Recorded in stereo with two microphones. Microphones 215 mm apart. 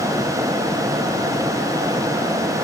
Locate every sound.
Only background noise.